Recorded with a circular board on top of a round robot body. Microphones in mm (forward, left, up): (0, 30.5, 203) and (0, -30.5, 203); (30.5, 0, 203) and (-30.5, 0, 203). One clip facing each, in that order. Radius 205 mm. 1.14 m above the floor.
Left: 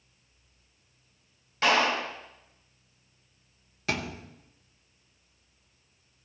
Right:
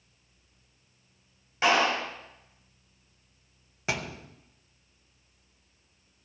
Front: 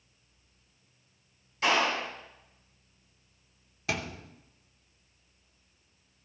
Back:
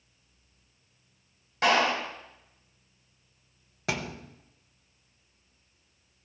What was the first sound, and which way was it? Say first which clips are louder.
A clap: even, back 3 dB; 165° right.